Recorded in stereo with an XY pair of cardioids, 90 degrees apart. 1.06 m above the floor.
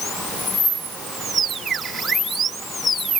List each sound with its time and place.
Only background noise.